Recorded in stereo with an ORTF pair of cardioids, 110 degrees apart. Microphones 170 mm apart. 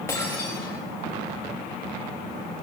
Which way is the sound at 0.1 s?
15° left.